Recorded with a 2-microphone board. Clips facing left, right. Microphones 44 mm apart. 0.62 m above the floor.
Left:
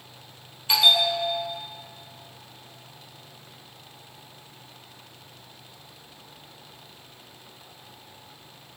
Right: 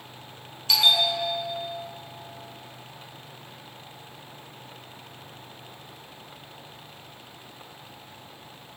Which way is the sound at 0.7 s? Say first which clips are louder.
Left 1 dB; 25° left (ahead or behind).